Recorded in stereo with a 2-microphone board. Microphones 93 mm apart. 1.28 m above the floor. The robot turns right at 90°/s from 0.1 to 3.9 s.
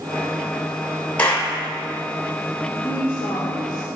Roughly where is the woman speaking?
Ahead left.